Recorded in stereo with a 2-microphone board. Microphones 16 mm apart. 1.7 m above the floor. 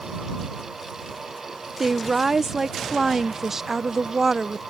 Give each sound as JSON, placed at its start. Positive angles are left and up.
{"t": 1.8, "sound": "a woman speaking", "side_deg": -25}